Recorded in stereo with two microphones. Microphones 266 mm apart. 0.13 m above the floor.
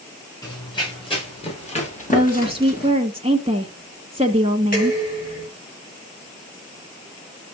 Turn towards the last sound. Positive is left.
turn(degrees=35)  # may be behind; listen again after turning